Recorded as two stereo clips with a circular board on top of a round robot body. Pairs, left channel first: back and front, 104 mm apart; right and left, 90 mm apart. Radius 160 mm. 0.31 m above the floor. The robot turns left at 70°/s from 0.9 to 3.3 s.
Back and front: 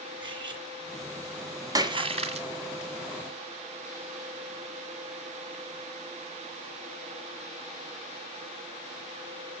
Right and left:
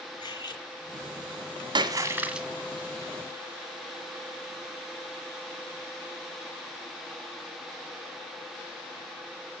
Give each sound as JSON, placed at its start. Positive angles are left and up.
{"t": 0.2, "sound": "cutlery clinking", "azimuth_deg": -45, "distance_m": 3.0}
{"t": 1.8, "sound": "a splash", "azimuth_deg": 55, "distance_m": 1.7}